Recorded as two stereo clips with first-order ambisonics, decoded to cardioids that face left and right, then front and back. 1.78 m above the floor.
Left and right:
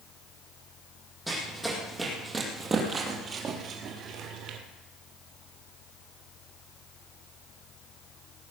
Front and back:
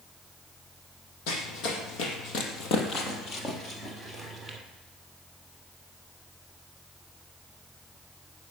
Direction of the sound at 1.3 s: 5° right.